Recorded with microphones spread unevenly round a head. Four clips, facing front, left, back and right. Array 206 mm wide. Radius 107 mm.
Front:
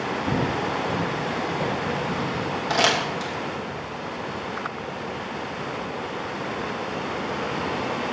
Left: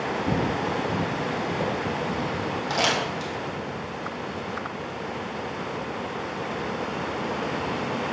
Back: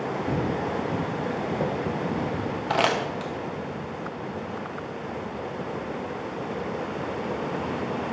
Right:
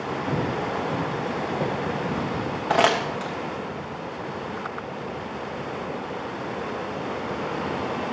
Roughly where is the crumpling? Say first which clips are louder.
Right 7 dB, front 1 dB; right.